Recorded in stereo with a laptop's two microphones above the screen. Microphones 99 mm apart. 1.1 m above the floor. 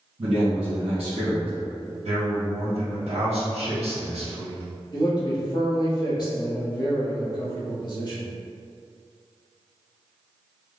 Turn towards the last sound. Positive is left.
turn(degrees=45)  # may be behind; listen again after turning